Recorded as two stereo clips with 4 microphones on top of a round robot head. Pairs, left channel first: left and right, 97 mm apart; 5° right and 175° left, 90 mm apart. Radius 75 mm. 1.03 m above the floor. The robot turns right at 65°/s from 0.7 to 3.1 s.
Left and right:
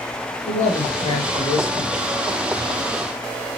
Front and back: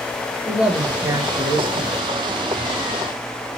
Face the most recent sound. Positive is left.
turn(degrees=-110)